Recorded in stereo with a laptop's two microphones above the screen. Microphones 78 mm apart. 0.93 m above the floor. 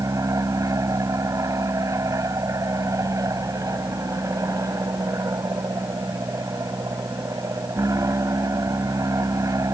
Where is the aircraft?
45° right (ahead or behind).